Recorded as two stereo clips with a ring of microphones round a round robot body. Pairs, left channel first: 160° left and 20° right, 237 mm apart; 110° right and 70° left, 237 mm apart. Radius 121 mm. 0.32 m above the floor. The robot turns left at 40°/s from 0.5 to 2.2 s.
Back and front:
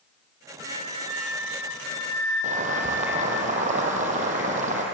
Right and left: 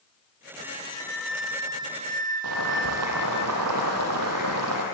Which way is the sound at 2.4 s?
40° left.